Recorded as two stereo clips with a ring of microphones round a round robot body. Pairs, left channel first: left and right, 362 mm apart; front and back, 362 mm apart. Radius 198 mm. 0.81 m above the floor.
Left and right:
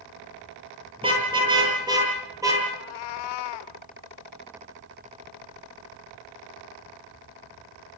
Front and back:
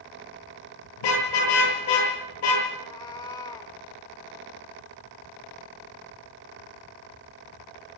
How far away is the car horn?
About 10 m.